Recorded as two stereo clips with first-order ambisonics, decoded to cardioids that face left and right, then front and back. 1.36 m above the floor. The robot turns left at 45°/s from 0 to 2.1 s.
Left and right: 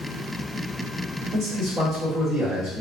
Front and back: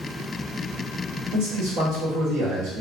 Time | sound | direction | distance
1.3 | a man speaking | 150° right | 1.4 m